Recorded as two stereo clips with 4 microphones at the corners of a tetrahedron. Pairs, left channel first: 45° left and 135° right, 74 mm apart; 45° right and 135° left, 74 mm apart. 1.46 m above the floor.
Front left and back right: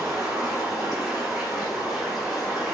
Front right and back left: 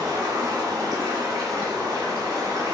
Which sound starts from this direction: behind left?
Running water, at 0.0 s.